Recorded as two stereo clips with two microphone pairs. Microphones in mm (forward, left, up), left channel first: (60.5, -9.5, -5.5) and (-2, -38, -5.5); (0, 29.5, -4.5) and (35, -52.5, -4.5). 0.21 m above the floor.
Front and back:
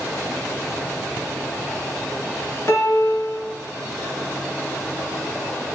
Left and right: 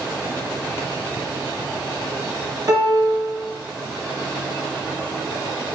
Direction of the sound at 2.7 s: 25° right.